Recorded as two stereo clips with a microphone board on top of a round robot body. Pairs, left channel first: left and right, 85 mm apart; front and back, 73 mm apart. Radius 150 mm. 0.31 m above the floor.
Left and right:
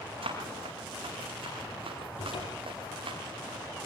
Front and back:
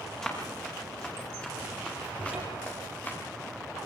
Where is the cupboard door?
105° left, 6.5 m.